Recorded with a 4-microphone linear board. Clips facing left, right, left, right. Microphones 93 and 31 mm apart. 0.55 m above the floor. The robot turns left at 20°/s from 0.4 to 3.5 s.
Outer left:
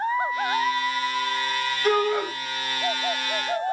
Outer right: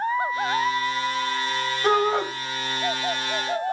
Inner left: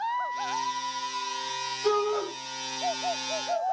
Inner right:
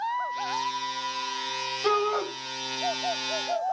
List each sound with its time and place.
1.8 s a shout: 30° right (ahead or behind), 3.5 m; by 2.3 s 20° right (ahead or behind), 3.5 m